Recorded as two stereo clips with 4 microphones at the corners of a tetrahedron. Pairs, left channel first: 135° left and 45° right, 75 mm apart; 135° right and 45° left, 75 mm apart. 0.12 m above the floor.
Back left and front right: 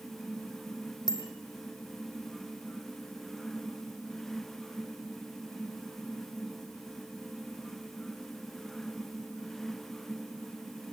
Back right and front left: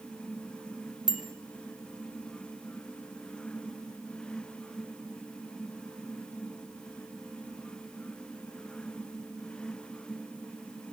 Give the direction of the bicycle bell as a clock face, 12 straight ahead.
8 o'clock.